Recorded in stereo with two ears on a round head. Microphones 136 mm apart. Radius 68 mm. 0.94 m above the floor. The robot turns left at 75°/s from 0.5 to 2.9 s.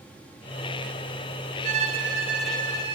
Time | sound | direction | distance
1.6 | a violin | 120° right | 2.5 m